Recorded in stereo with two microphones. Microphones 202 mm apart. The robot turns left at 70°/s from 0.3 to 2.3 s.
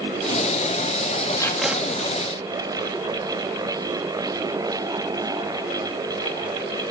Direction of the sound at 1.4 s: 20° left.